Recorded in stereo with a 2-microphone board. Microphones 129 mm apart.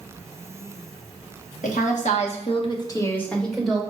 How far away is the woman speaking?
About 1.1 m.